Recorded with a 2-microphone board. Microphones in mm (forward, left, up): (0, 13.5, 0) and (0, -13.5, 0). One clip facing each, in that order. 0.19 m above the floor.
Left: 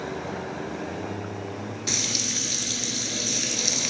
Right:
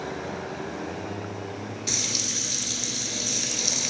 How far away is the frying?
About 2.5 m.